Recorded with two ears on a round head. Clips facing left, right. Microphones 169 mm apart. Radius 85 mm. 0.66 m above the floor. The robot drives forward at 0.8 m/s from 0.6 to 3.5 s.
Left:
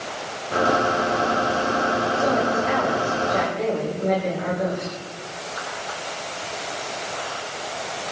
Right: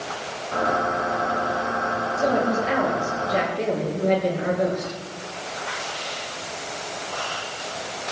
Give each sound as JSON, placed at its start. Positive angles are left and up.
{"t": 2.2, "sound": "a woman speaking", "side_deg": -30, "distance_m": 10.0}